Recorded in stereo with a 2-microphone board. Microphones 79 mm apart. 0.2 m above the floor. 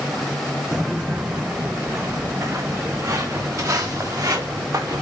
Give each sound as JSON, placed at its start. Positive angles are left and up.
{"t": 0.7, "sound": "footsteps", "side_deg": -10, "distance_m": 0.8}